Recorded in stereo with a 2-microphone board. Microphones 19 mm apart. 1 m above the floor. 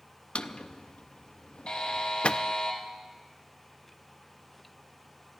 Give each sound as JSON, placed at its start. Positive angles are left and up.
{"t": 0.3, "sound": "a drawer", "side_deg": 75, "distance_m": 0.5}
{"t": 1.7, "sound": "a buzzer", "side_deg": 60, "distance_m": 3.5}